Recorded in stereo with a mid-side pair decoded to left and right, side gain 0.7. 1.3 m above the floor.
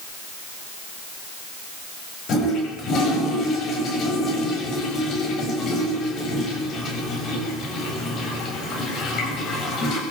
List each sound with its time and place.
2.3 s a toilet flushing: 45° left, 7 m